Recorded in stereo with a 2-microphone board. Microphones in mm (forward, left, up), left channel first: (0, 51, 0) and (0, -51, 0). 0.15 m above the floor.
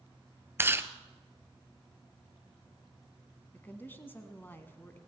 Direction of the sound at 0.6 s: 25° right (ahead or behind).